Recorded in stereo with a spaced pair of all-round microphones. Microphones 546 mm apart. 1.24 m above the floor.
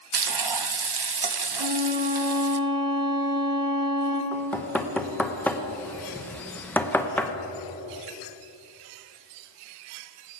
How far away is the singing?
I don't hear singing.